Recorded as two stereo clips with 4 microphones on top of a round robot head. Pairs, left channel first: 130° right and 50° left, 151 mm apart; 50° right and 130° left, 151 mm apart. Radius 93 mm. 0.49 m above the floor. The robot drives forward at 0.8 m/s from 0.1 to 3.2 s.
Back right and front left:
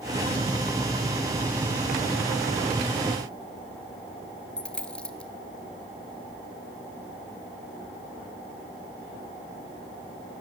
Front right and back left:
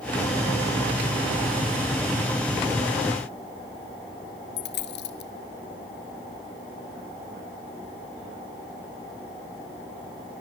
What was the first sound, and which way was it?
A dropped coin, 50° right.